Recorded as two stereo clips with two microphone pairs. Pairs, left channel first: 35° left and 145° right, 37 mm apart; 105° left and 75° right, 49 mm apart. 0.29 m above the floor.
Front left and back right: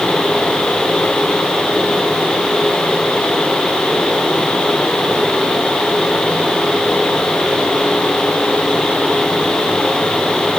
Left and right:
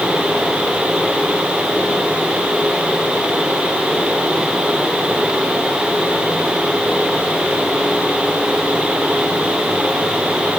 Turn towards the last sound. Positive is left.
No sound to turn to.